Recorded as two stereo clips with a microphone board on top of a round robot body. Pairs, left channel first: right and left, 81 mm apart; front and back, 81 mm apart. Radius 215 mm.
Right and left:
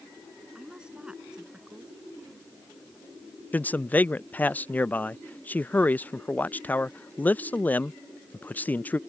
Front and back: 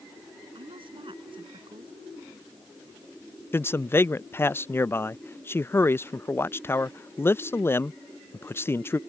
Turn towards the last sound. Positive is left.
turn(degrees=-35)